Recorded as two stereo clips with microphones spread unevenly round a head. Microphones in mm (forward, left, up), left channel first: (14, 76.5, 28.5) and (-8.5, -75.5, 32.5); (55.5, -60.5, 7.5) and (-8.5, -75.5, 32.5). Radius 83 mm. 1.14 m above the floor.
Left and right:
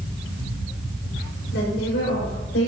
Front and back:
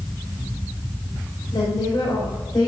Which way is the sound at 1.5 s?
65° left.